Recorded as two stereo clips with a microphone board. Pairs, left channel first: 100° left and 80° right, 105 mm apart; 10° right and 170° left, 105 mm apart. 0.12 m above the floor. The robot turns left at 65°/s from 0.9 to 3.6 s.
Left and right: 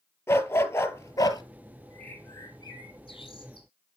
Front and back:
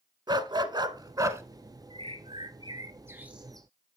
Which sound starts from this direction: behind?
A bird, at 1.9 s.